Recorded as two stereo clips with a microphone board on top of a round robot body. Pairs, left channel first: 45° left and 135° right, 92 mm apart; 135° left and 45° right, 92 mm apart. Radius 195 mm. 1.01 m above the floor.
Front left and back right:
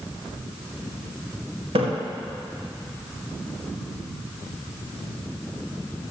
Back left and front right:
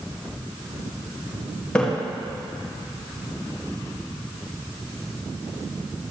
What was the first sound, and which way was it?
A splash, 150° right.